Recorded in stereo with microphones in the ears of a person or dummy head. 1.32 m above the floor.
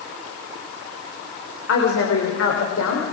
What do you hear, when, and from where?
1.7 s a woman speaking: 70° left (ahead or behind), 4 m